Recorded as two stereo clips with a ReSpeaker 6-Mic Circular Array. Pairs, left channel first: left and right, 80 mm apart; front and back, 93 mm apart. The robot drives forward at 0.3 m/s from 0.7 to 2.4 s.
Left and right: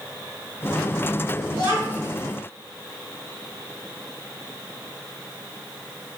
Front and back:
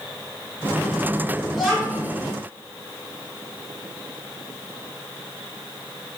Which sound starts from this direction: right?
A child speaking, at 1.5 s.